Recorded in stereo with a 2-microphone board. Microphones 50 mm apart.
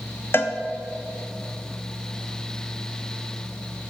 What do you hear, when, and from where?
0.3 s a cowbell: 50° left (ahead or behind), 0.6 m